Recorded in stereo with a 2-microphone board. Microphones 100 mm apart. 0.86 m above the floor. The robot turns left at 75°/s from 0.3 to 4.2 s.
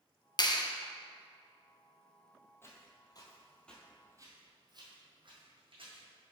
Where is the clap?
45° left (ahead or behind), 0.5 m.